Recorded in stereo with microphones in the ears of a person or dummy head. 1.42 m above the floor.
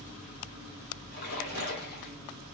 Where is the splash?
60° left (ahead or behind), 2.5 m.